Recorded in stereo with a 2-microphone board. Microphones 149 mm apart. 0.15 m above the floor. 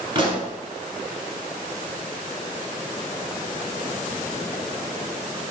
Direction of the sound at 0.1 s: 40° right (ahead or behind).